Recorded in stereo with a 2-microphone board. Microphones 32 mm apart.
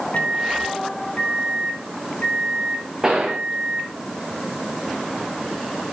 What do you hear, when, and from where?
0.1 s a microwave: 55° left (ahead or behind), 3 m
3.0 s a gunshot: 15° right (ahead or behind), 2 m